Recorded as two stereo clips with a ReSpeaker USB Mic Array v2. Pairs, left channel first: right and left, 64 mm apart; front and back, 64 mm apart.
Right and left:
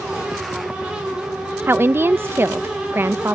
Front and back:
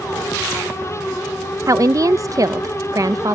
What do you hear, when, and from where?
1.7 s a woman speaking: 145° left